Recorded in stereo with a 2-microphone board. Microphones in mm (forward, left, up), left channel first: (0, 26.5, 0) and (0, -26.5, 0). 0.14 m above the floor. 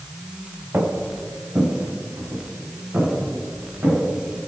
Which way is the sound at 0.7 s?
45° right (ahead or behind).